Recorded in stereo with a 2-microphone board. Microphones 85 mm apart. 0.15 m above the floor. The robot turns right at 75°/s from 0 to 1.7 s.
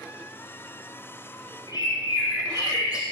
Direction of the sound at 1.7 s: 50° left (ahead or behind).